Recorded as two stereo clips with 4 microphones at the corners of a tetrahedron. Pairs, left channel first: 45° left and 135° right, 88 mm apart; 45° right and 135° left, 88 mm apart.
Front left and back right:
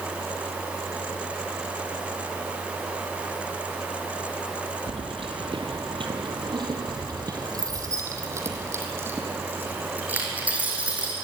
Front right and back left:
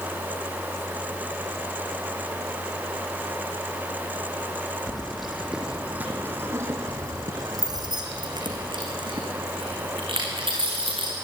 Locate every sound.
4.9 s keys jangling: 130° right, 3 m; by 11.1 s 150° left, 7 m